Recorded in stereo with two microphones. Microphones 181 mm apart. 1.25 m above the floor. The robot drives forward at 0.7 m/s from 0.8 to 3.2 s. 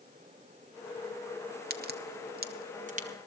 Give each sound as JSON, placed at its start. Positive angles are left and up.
{"t": 1.7, "sound": "a crack", "side_deg": -60, "distance_m": 0.8}